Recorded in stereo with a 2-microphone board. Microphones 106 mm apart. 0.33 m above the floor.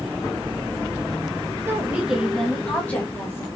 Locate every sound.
1.7 s a woman speaking: 20° right (ahead or behind), 1.4 m; by 3.5 s 30° left (ahead or behind), 1.9 m